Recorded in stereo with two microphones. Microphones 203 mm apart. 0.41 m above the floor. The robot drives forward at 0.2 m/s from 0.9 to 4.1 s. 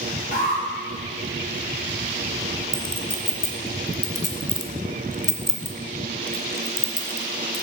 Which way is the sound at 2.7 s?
45° left (ahead or behind).